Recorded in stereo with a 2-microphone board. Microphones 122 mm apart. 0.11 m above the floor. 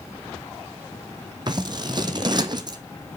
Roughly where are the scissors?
Right.